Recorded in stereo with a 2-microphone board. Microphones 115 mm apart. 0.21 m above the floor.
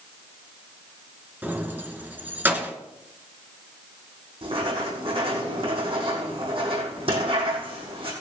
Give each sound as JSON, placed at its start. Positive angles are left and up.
{"t": 1.4, "sound": "keys jangling", "side_deg": -15, "distance_m": 2.0}
{"t": 4.4, "sound": "writing", "side_deg": -55, "distance_m": 7.0}